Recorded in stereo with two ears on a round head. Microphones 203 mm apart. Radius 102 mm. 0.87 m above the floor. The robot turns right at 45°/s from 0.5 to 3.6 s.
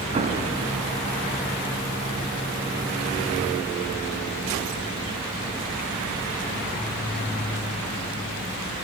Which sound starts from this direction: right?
An explosion, at 0.1 s.